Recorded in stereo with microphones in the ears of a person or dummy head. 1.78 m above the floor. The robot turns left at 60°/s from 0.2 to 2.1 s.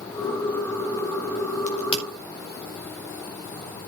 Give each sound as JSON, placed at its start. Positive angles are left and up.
{"t": 1.7, "sound": "a crack", "side_deg": 50, "distance_m": 5.0}